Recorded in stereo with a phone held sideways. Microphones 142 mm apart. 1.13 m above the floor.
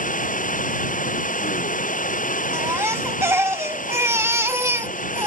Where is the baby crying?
15° right (ahead or behind).